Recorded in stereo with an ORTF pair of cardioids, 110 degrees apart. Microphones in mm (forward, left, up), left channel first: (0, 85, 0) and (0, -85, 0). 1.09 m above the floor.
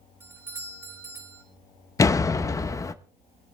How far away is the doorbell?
About 5.5 m.